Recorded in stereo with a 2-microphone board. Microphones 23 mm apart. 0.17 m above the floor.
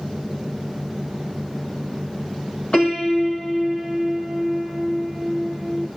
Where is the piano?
45° left (ahead or behind), 3 m.